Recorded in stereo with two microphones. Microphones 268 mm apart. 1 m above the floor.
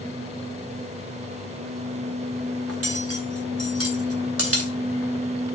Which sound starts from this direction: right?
Cutlery clinking, at 2.7 s.